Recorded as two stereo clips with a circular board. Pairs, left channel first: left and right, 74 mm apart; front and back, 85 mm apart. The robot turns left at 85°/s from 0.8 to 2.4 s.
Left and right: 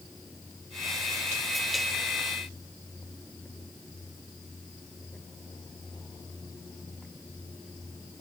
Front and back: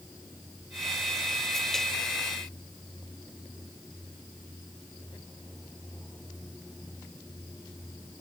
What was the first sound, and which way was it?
Only background noise.